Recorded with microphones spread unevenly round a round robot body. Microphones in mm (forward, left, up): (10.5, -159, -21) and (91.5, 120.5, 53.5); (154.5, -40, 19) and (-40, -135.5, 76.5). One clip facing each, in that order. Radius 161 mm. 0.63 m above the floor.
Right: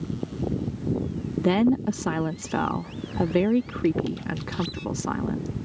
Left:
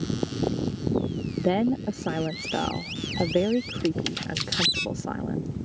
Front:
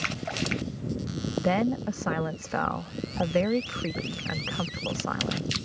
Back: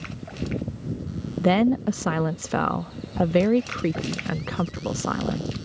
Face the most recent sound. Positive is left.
turn(degrees=-120)